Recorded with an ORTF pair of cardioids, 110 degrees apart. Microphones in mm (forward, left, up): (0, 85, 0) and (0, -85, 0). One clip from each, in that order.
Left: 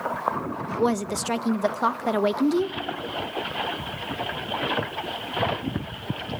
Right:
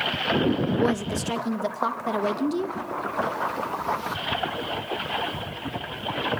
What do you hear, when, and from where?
0.8 s a woman speaking: 20° left, 0.7 m